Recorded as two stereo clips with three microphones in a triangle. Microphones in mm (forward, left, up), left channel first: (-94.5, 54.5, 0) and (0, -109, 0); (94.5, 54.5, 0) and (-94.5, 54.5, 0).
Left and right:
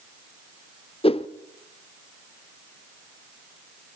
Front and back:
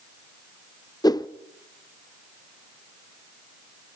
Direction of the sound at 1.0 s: 70° left.